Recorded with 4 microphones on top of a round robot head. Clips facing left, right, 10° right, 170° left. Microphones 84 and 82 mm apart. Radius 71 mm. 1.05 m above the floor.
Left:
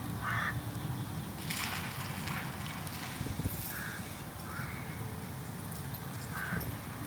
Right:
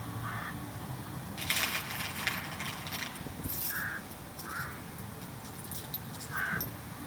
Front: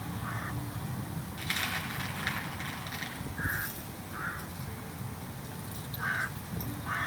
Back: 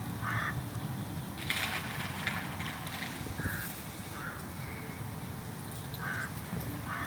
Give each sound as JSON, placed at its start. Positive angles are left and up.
{"t": 1.4, "sound": "a dropped coin", "azimuth_deg": -85, "distance_m": 6.5}